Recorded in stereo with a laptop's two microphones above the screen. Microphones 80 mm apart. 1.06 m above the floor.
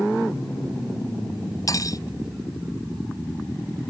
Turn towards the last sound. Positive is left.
turn(degrees=45)  # may be behind; listen again after turning